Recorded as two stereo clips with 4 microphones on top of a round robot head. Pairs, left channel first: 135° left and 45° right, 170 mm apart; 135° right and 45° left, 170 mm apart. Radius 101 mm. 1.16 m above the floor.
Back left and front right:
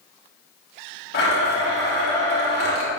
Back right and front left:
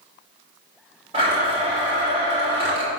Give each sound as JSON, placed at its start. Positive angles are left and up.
{"t": 1.1, "sound": "a blender", "azimuth_deg": 105, "distance_m": 2.5}